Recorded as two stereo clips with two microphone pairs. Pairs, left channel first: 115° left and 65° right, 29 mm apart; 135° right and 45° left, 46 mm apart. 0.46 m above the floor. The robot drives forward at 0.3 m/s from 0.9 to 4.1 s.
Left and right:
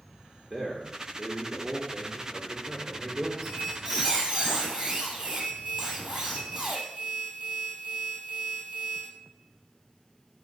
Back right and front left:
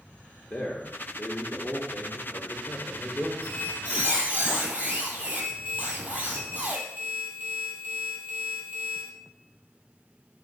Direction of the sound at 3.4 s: 15° right.